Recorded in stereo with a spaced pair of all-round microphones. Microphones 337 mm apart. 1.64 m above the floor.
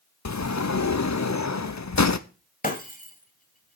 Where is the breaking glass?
25° left (ahead or behind), 1.6 m.